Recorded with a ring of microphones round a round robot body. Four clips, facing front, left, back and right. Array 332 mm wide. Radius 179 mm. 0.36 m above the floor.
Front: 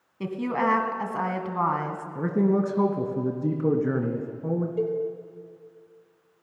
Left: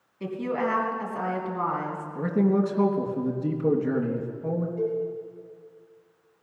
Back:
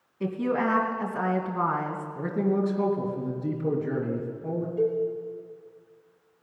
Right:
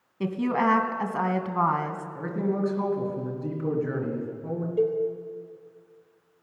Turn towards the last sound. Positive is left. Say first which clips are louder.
# right 6 dB, back 4 dB
turn(degrees=-65)